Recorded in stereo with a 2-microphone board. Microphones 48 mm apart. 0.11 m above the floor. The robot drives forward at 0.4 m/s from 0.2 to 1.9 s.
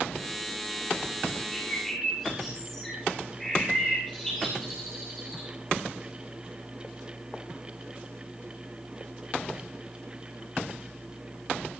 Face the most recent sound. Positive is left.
turn(degrees=15)  # may be behind; listen again after turning